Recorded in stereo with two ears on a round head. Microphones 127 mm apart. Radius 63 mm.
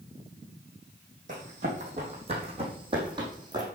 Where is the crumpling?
I don't hear crumpling.